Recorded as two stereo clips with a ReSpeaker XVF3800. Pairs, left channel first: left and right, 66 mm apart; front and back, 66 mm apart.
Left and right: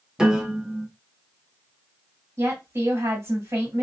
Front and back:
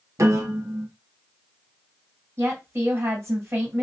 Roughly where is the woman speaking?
Behind right.